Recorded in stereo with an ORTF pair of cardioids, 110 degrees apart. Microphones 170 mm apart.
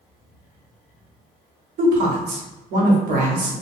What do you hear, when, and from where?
1.8 s a woman speaking: 65° right, 1.0 m